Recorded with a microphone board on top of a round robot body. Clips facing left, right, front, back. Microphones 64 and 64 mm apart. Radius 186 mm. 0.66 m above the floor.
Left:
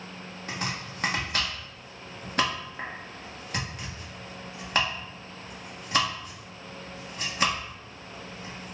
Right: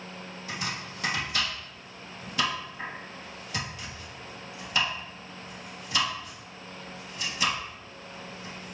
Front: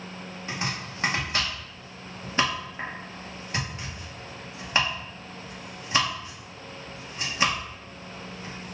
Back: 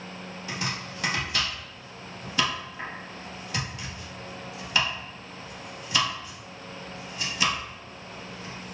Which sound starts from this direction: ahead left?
Chopping, at 0.5 s.